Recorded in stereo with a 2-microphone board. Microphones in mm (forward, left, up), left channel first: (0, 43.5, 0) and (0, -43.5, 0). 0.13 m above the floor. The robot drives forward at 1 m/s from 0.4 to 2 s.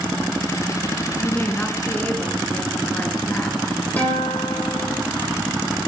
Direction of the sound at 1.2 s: 20° left (ahead or behind).